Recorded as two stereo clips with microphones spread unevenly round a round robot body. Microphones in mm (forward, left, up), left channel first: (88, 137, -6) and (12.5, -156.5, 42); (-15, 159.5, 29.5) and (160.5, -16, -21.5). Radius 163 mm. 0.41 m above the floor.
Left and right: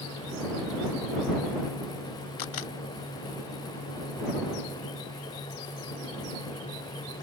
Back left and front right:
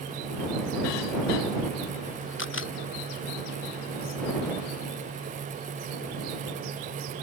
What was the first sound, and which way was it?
A camera shutter, 95° left.